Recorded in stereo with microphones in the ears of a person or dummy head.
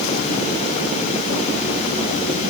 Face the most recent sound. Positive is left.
No sound to turn to.